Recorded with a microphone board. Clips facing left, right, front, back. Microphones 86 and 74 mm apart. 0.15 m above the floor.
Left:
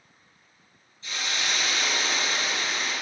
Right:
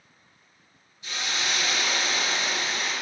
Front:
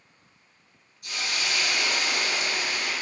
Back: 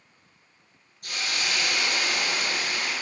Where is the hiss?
160° right, 3 m.